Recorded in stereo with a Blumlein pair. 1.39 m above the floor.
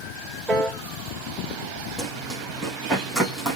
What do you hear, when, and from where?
0.5 s a piano: 15° right, 4.5 m
2.0 s running footsteps: straight ahead, 4.5 m